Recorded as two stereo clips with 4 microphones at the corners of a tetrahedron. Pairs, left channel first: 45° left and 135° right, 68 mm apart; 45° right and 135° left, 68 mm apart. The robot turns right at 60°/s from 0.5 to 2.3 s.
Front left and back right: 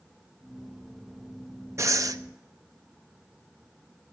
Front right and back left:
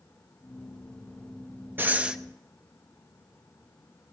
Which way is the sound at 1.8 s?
170° right.